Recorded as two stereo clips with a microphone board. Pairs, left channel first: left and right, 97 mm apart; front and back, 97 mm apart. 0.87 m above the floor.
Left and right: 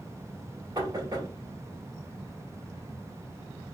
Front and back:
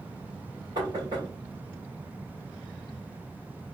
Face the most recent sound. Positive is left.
turn(degrees=-135)